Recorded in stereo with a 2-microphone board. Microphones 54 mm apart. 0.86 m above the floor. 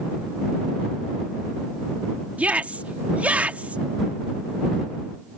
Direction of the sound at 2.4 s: 25° right (ahead or behind).